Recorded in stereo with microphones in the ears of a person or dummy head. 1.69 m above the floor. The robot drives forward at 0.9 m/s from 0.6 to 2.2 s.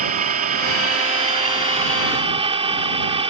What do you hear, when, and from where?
0.0 s an engine running: 55° right (ahead or behind); by 3.3 s 40° right (ahead or behind)